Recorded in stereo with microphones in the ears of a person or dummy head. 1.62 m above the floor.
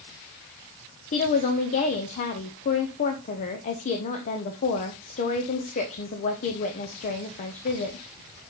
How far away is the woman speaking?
About 0.8 m.